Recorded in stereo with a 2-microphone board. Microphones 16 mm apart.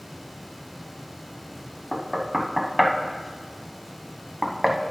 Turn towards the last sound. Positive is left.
turn(degrees=-5)  # may be behind; listen again after turning